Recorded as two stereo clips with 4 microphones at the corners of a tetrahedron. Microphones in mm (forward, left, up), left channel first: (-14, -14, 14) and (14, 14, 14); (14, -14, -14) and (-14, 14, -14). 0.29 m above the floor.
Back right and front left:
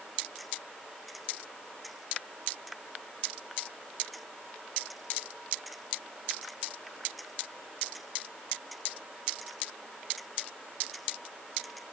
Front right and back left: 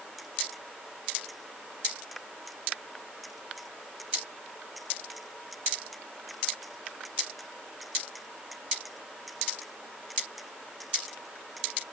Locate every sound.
Only background noise.